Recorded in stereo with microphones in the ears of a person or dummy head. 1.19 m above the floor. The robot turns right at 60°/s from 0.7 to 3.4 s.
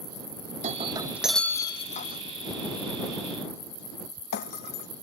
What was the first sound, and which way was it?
Breaking glass, 35° right (ahead or behind).